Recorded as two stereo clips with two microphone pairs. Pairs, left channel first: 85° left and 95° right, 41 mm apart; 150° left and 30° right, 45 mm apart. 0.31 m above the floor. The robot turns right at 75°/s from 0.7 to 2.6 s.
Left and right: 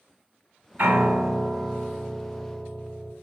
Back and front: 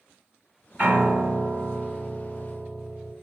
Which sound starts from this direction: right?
A piano, at 0.8 s.